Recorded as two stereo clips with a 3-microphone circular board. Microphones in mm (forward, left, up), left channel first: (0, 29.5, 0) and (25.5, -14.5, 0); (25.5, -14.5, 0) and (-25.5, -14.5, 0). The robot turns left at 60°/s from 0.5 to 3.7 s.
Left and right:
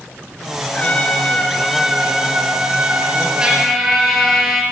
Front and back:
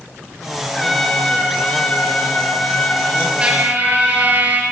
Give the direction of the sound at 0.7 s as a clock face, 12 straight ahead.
9 o'clock.